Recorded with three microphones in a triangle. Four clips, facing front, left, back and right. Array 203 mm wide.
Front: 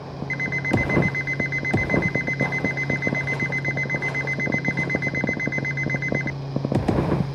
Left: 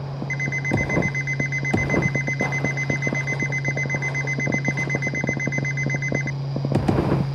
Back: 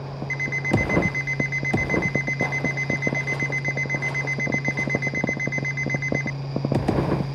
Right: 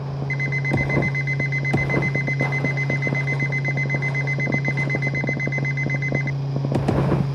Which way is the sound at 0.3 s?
5° right.